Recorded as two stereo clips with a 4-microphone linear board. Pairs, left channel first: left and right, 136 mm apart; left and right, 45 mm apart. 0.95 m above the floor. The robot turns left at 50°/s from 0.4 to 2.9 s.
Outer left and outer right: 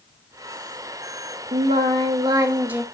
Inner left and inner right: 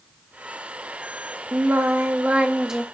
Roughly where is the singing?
Right.